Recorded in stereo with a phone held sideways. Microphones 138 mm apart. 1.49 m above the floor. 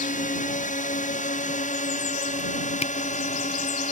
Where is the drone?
65° left (ahead or behind); by 3.9 s 60° left (ahead or behind).